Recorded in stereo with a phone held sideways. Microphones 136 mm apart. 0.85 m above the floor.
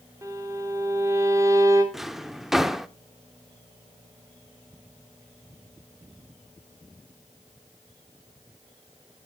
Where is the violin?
25° right (ahead or behind), 2.5 m.